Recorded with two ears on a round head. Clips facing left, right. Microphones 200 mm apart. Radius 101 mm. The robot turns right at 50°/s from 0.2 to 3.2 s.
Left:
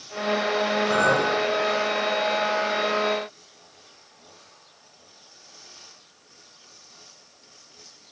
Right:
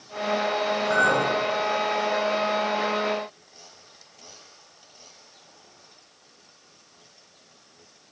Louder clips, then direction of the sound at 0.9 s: Left 1 dB; 55° left (ahead or behind).